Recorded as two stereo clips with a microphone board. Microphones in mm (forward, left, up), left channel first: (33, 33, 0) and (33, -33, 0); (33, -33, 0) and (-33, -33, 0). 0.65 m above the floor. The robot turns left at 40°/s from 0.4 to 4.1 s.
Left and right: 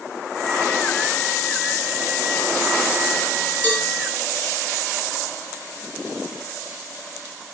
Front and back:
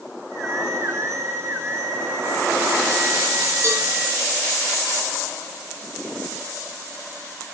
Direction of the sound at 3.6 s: 150° left.